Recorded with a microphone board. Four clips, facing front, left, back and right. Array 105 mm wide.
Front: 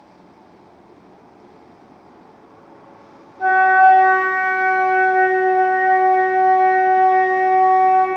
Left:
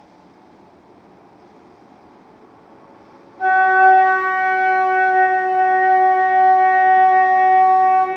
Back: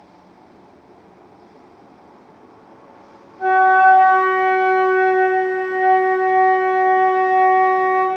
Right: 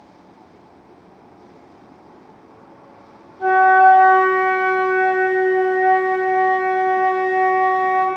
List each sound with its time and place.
3.4 s a flute: 90° left, 2 m